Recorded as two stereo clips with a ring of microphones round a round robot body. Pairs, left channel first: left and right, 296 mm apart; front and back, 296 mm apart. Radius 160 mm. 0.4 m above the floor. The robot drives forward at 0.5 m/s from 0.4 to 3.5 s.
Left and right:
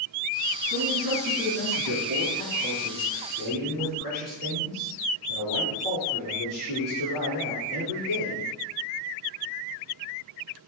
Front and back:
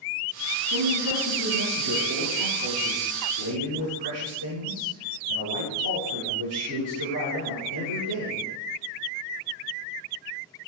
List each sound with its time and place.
0.7 s a man speaking: 140° right, 4.5 m; by 8.5 s 150° right, 5.5 m